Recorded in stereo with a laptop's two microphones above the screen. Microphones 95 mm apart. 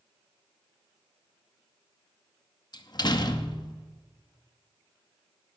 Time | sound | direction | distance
2.7 | a door slam | 45° left (ahead or behind) | 0.7 m